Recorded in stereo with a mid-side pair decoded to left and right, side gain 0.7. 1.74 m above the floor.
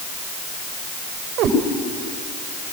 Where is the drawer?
No drawer in this recording.